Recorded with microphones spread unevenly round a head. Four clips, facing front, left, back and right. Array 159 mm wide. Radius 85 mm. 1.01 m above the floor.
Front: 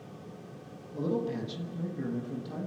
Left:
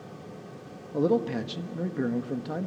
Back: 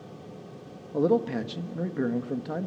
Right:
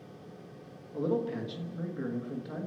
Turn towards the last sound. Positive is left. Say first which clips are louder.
# left 6 dB, back 7 dB
turn(degrees=155)